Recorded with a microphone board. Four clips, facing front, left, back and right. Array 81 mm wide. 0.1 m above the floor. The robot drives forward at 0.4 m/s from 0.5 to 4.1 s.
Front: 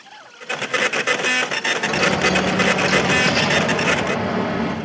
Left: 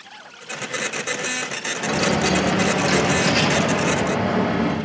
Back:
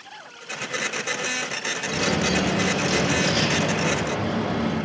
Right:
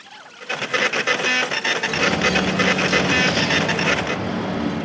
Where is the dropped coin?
45° left, 6.5 m; by 4.8 s 50° left, 6 m.